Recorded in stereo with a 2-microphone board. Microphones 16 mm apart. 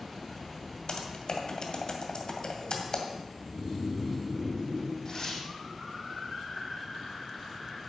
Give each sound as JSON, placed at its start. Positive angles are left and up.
{"t": 0.9, "sound": "typing on a keyboard", "side_deg": 45, "distance_m": 2.0}
{"t": 3.4, "sound": "snoring", "side_deg": -20, "distance_m": 2.5}
{"t": 5.0, "sound": "tearing paper", "side_deg": 50, "distance_m": 6.0}